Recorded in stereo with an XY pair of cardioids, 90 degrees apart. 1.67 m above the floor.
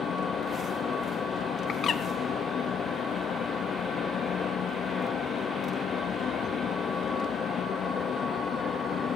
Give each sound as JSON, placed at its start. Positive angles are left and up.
{"t": 0.0, "sound": "a fan", "azimuth_deg": 65, "distance_m": 1.2}
{"t": 1.7, "sound": "a bird", "azimuth_deg": 60, "distance_m": 1.7}